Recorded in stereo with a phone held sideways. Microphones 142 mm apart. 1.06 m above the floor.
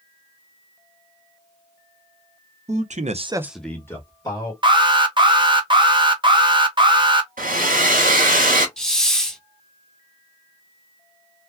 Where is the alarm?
35° right (ahead or behind), 0.9 m.